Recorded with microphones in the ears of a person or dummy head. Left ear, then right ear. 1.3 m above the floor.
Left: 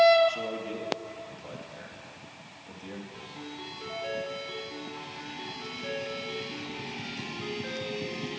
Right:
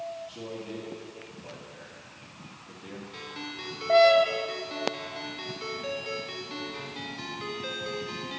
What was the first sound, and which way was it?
A man speaking, 85° left.